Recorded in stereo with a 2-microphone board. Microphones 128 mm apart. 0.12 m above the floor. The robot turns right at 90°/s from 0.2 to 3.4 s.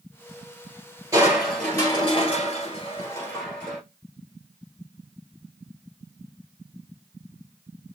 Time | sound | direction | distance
1.1 | crushing | 30° right | 1.8 m